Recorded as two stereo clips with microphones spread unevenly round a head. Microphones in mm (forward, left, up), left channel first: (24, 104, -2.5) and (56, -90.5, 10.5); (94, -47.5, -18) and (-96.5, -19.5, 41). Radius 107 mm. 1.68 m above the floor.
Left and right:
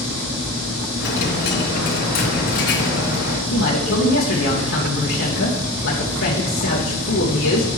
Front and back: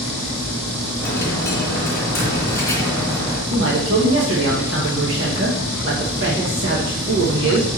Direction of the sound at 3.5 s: 135° left.